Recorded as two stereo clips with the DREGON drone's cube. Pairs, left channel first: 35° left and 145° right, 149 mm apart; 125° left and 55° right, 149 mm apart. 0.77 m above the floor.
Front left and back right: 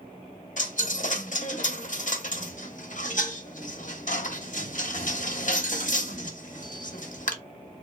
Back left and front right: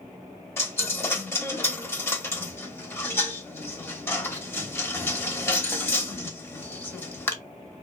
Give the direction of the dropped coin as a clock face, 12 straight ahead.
10 o'clock.